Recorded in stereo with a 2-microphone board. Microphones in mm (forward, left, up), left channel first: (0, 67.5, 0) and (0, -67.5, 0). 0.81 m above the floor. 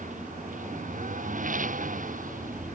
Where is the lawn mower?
75° right (ahead or behind); by 2.8 s 80° right.